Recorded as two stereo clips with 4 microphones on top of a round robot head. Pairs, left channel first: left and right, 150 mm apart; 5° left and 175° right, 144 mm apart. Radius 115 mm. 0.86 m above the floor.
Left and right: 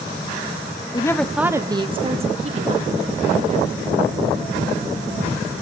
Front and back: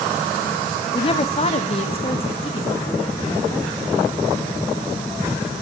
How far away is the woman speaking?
About 0.9 m.